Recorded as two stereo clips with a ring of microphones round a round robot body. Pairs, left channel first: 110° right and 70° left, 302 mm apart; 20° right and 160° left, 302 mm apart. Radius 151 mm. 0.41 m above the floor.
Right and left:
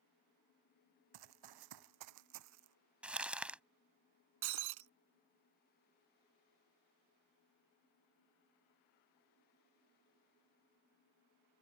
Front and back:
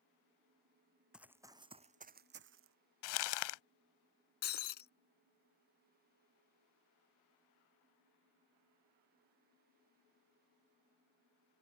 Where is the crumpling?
20° right.